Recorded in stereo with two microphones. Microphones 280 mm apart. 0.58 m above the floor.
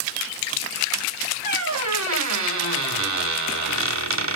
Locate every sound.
1.4 s a squeak: 75° right (ahead or behind), 0.7 m